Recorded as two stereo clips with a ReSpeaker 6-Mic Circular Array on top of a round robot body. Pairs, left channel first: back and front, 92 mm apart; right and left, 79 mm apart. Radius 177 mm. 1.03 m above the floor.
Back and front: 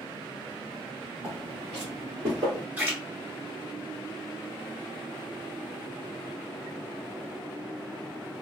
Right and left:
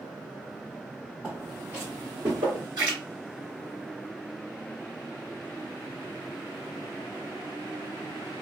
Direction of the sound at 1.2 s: 15° left.